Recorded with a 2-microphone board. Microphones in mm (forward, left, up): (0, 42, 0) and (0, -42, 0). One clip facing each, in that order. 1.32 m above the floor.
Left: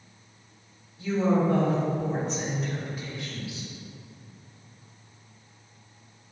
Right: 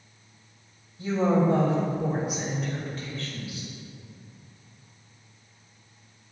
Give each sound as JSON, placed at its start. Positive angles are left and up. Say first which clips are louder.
{"t": 1.0, "sound": "a woman speaking", "louder": "right 1 dB", "side_deg": -40, "distance_m": 2.5}